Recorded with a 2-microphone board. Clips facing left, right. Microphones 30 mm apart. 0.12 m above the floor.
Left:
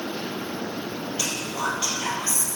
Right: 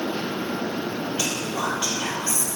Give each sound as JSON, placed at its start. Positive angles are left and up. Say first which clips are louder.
{"t": 1.2, "sound": "whispering", "louder": "even", "side_deg": -15, "distance_m": 2.5}